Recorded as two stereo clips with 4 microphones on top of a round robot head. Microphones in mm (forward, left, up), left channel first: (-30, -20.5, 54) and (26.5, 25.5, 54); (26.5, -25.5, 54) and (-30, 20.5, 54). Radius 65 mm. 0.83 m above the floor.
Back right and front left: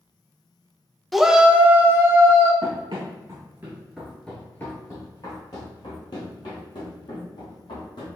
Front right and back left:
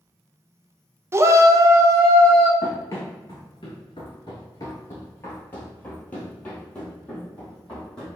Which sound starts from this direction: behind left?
A shout, at 1.1 s.